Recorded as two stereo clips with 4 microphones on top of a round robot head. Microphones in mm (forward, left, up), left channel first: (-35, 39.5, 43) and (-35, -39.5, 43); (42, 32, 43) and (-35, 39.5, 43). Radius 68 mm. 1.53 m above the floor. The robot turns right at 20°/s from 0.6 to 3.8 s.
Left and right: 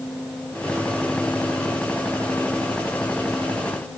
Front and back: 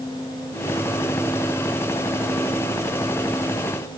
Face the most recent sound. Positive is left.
No sound to turn to.